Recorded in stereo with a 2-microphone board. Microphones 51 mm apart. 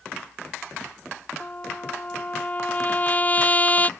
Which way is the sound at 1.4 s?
30° left (ahead or behind).